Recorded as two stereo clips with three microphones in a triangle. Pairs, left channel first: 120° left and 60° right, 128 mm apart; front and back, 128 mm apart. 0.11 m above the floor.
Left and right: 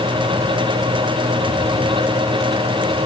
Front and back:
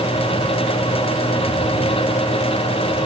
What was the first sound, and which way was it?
Only background noise.